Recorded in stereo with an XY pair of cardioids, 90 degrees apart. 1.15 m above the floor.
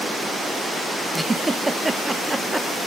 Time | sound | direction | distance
1.1 | a giggle | 15° right | 1.0 m